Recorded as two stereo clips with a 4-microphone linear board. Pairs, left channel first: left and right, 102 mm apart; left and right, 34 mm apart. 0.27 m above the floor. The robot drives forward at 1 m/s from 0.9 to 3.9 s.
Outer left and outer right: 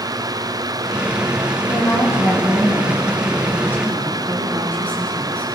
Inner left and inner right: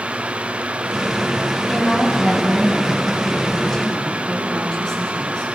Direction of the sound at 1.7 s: 30° left (ahead or behind).